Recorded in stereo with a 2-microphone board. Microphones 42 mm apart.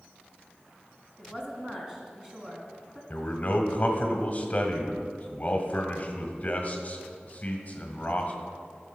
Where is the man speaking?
35° left (ahead or behind), 1.6 m.